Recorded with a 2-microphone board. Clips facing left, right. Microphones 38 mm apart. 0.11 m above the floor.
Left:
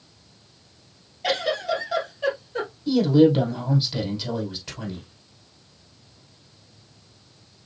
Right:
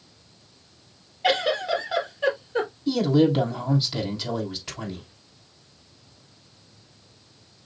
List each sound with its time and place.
1.2 s a giggle: 15° right (ahead or behind), 2.5 m
2.9 s a man speaking: 5° right (ahead or behind), 3.5 m